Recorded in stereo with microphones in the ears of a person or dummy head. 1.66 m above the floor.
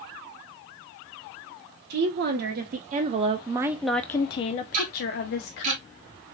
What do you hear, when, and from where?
1.9 s a woman speaking: 60° right (ahead or behind), 1.3 m; by 5.7 s 65° left (ahead or behind), 1.1 m
4.7 s ticking: 45° right (ahead or behind), 1.5 m